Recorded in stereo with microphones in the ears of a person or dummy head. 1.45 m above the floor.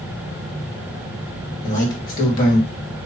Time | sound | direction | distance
1.6 | a man speaking | 50° left (ahead or behind) | 1.8 m